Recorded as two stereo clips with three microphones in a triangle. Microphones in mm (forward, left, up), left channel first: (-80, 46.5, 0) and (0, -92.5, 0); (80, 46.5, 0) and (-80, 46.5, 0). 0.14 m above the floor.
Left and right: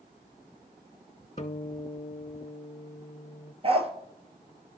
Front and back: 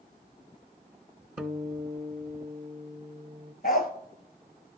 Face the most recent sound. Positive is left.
turn(degrees=-15)